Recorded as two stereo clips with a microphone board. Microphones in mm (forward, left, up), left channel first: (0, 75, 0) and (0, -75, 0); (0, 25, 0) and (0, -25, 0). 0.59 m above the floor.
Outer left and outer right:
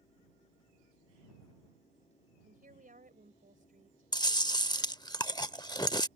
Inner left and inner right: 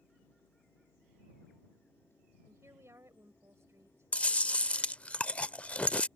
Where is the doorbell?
No doorbell in this recording.